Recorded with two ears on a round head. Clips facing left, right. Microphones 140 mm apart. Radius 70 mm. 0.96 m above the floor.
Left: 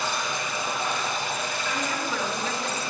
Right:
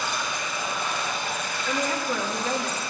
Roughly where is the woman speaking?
Right.